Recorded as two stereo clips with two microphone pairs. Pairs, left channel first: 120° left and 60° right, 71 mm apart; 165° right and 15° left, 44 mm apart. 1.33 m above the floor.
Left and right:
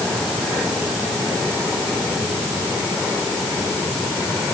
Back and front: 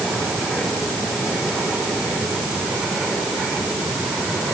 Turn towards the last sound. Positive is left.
No sound to turn to.